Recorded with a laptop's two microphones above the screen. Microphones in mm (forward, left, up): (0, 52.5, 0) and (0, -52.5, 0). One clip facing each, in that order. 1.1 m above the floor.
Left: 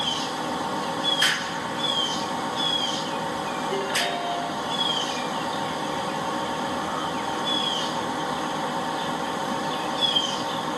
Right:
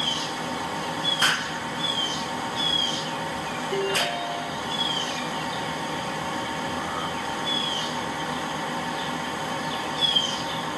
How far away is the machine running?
About 0.8 m.